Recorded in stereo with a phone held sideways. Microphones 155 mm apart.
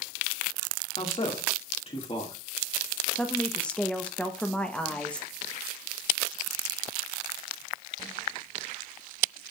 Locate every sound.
1.0 s a man speaking: 40° left (ahead or behind), 2 m
3.1 s a woman speaking: 5° left (ahead or behind), 0.9 m